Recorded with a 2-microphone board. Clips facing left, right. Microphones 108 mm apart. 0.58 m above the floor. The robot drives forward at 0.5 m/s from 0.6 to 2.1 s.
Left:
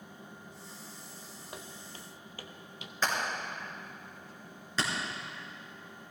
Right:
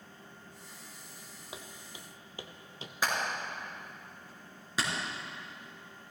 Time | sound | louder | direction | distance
1.5 | footsteps | left 1 dB | 5° right (ahead or behind) | 1.0 m
3.0 | hammering | even | 10° right (ahead or behind) | 4.5 m